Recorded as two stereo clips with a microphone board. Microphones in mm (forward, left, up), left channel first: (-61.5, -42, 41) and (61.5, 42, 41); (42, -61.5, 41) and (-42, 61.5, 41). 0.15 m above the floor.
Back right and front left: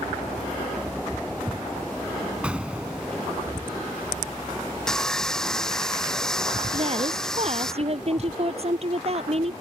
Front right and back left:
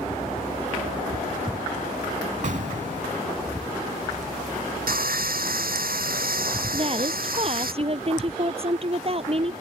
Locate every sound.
2.4 s an explosion: 115° left
4.9 s sawing: 130° left
6.7 s a woman speaking: 80° left